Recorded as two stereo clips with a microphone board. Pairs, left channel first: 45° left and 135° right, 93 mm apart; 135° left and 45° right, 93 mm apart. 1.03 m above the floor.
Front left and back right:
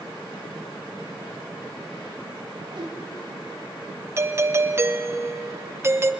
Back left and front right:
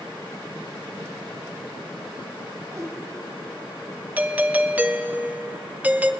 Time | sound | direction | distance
2.7 | a whoosh | 100° right | 1.7 m
4.2 | a doorbell | 105° right | 0.8 m